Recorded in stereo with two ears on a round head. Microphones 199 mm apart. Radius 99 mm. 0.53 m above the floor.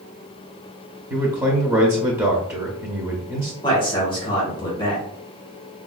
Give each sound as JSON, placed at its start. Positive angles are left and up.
{"t": 1.1, "sound": "a man speaking", "side_deg": -10, "distance_m": 0.7}
{"t": 3.6, "sound": "a man speaking", "side_deg": 20, "distance_m": 1.3}